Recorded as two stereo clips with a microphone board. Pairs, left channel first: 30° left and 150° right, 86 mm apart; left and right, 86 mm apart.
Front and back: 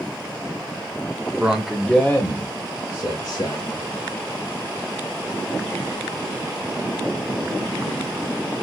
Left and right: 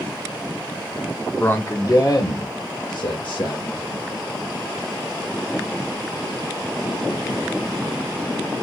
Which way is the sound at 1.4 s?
150° left.